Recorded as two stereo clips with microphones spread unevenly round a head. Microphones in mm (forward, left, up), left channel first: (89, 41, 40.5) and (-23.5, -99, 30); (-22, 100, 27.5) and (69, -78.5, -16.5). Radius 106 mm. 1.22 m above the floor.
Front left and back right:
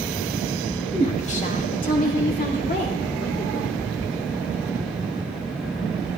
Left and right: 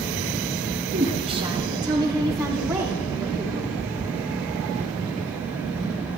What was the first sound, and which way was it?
A woman speaking, 5° right.